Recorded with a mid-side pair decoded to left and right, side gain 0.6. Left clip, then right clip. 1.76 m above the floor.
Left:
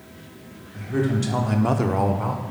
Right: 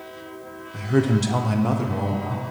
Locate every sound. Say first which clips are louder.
0.7 s a man speaking: right 3 dB; 45° right, 1.2 m; by 2.4 s 75° left, 1.0 m